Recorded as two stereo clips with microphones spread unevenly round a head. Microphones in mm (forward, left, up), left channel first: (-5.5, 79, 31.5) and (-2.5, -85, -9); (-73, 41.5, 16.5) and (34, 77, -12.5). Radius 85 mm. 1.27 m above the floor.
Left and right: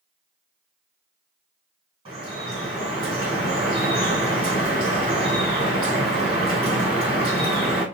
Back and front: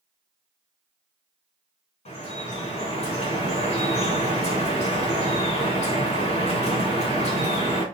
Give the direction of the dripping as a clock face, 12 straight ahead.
5 o'clock.